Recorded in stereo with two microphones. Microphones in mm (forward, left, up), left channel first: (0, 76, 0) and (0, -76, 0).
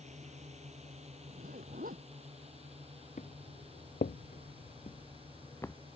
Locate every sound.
0.0 s a drone: 50° right (ahead or behind); by 6.0 s 35° right (ahead or behind)
1.3 s a zipper: 70° right (ahead or behind)
3.2 s footsteps: 55° left (ahead or behind); by 5.8 s 15° left (ahead or behind)